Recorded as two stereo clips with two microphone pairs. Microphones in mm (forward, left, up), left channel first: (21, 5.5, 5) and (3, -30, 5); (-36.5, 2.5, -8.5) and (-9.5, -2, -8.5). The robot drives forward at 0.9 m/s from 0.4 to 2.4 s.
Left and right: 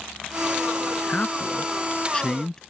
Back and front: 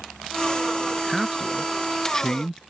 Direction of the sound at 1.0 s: 65° left.